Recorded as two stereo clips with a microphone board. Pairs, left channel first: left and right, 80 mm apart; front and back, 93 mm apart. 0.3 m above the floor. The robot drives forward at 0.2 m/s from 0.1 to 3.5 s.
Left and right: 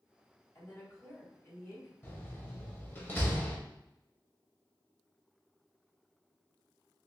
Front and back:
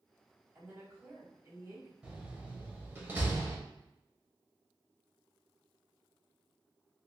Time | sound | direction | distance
0.6 | a woman speaking | 130° left | 2.0 m
2.0 | a door slam | 110° left | 0.8 m